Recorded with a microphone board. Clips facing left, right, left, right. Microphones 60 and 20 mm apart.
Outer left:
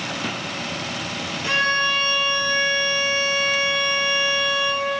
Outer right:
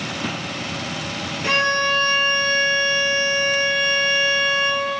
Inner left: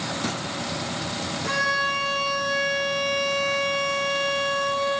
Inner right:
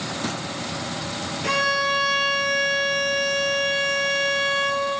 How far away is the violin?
About 2.0 m.